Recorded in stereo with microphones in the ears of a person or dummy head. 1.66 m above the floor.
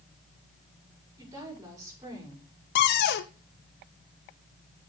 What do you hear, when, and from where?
1.2 s a woman speaking: 20° right (ahead or behind), 6 m
2.8 s a cupboard door: 60° left (ahead or behind), 0.7 m